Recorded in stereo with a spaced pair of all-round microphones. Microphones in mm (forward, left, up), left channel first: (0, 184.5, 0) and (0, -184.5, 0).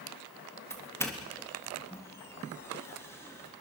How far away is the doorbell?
About 3.5 m.